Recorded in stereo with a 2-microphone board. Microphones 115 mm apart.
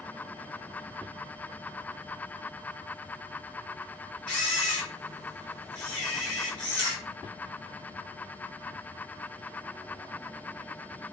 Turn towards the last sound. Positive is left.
turn(degrees=10)  # may be behind; listen again after turning